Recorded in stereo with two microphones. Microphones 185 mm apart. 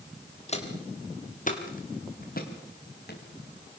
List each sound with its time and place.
0.5 s footsteps: 35° left (ahead or behind), 4.5 m; by 3.2 s 60° left (ahead or behind), 5 m